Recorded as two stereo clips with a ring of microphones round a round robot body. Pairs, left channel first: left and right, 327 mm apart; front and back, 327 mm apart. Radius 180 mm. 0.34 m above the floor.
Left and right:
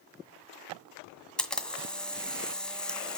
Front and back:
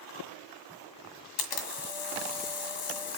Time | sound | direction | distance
1.4 | a camera shutter | straight ahead | 1.8 m